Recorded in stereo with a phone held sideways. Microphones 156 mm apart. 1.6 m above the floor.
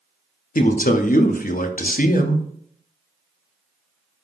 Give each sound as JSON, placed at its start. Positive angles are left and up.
{"t": 0.6, "sound": "a man speaking", "side_deg": 60, "distance_m": 0.6}